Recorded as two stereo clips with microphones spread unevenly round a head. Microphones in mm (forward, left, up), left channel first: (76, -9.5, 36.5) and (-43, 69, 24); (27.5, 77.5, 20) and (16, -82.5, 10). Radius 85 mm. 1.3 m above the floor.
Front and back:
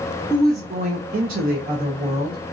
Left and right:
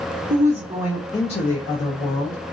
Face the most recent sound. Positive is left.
turn(degrees=105)